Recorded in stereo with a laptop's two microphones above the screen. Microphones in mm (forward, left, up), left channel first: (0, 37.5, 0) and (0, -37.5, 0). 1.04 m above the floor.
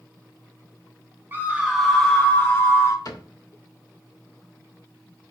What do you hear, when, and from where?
1.3 s a scream: 25° right (ahead or behind), 0.7 m; by 3.0 s 35° left (ahead or behind), 1.0 m
3.0 s a cupboard door: 55° left (ahead or behind), 1.3 m